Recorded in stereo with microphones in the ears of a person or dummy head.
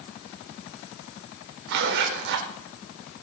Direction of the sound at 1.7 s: 65° right (ahead or behind).